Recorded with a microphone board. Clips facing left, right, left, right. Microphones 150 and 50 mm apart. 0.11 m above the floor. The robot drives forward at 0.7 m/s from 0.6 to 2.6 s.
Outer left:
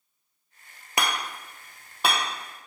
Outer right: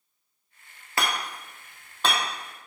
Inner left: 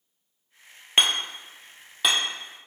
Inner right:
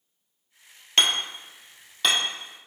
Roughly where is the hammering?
Centre.